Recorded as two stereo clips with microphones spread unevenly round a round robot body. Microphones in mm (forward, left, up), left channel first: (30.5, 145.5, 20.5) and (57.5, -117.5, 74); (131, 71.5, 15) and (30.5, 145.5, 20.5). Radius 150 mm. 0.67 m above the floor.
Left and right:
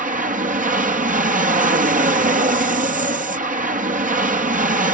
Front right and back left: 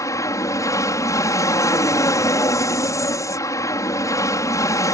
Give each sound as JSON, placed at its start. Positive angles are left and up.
{"t": 0.0, "sound": "an aircraft", "azimuth_deg": -40}